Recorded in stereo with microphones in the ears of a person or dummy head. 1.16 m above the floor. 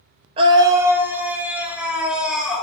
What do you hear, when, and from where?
0.4 s a scream: 30° right (ahead or behind), 0.5 m; by 2.6 s 5° right (ahead or behind), 3 m